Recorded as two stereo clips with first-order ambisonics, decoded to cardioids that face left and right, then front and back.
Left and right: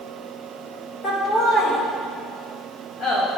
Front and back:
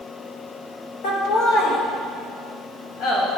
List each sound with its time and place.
1.0 s laughter: 20° left, 1.3 m; by 3.4 s 35° left, 3 m